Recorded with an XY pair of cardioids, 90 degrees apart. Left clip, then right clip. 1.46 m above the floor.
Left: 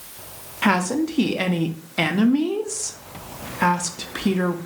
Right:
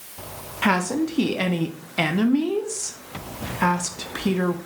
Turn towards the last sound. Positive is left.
turn(degrees=5)